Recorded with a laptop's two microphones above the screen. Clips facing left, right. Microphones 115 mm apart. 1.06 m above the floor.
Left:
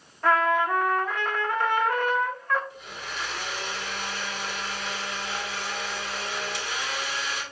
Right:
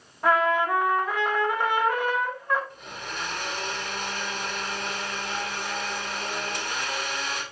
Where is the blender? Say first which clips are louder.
Right 1 dB; 50° right (ahead or behind), 2.5 m.